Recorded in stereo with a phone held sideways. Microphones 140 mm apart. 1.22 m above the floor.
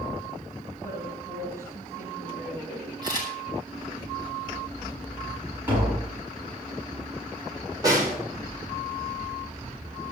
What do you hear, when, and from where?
0.8 s a woman speaking: 20° right (ahead or behind), 9.5 m
3.0 s a camera shutter: 30° right (ahead or behind), 6.5 m
5.7 s tapping: 15° right (ahead or behind), 9 m
7.8 s a snare drum: 25° right (ahead or behind), 4.5 m